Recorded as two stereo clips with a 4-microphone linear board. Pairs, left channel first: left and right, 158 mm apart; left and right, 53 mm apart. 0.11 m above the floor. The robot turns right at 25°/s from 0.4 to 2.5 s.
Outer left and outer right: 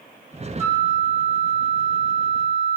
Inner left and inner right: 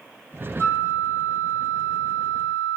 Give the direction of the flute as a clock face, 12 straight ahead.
9 o'clock.